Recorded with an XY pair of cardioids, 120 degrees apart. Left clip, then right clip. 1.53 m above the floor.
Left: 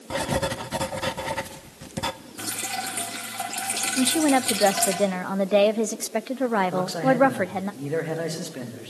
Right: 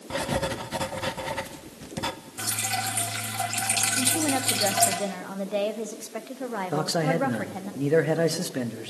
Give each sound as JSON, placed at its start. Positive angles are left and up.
{"t": 0.1, "sound": "writing", "azimuth_deg": 20, "distance_m": 1.2}
{"t": 2.4, "sound": "dripping", "azimuth_deg": -15, "distance_m": 5.0}
{"t": 4.0, "sound": "a woman speaking", "azimuth_deg": 50, "distance_m": 0.9}
{"t": 6.7, "sound": "a man speaking", "azimuth_deg": -35, "distance_m": 2.5}